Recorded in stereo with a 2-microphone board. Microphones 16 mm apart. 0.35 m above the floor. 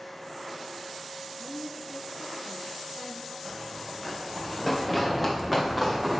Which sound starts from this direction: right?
A woman speaking, at 1.4 s.